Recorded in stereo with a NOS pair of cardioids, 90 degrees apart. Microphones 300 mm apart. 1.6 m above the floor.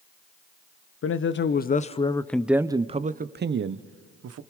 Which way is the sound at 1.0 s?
45° left.